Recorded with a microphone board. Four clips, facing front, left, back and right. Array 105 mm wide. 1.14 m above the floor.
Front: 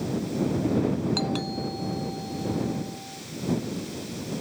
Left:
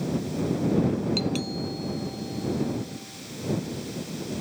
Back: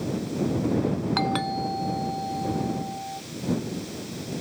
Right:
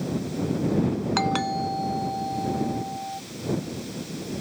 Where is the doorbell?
120° right.